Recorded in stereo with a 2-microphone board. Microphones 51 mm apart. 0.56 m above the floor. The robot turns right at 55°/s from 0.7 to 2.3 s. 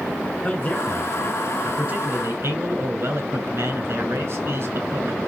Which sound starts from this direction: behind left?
A man speaking, at 0.4 s.